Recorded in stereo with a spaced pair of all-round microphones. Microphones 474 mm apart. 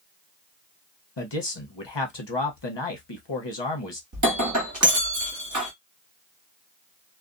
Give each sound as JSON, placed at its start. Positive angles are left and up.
{"t": 1.2, "sound": "a man speaking", "side_deg": 60, "distance_m": 0.9}
{"t": 4.1, "sound": "breaking glass", "side_deg": -40, "distance_m": 1.1}